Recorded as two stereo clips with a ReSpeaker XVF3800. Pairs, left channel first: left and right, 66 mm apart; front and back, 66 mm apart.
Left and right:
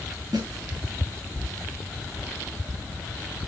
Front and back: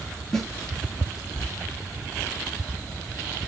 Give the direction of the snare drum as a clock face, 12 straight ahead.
3 o'clock.